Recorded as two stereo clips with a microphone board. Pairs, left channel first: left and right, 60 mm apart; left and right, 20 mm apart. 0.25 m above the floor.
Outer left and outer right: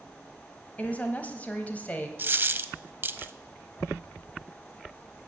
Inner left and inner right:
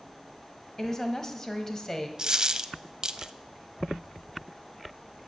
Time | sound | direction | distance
0.8 | a woman speaking | 25° left (ahead or behind) | 1.3 m
2.2 | a dropped coin | 35° right (ahead or behind) | 0.5 m